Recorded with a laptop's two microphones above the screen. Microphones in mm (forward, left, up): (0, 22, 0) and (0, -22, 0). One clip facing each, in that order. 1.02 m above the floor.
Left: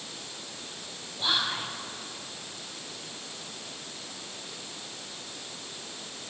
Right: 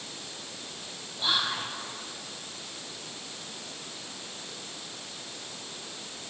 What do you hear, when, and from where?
1.2 s whispering: centre (ahead or behind), 0.7 m